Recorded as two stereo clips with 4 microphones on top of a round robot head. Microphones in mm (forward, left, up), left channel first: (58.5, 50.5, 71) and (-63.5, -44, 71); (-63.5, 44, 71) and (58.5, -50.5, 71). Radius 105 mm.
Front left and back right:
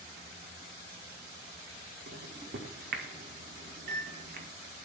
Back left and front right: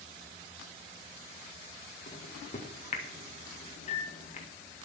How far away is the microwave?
About 1.8 m.